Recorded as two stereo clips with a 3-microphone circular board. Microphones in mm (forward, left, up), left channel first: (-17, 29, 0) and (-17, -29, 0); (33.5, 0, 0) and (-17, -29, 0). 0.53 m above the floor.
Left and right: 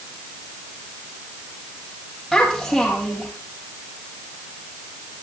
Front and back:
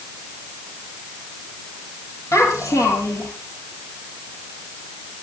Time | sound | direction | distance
2.3 | a child speaking | 5° left | 9.5 m